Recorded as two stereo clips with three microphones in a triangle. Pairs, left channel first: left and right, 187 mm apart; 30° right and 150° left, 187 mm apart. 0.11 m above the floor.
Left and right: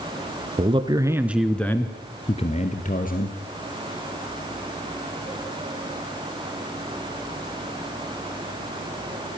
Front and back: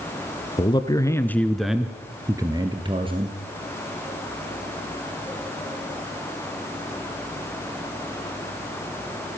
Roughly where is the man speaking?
Right.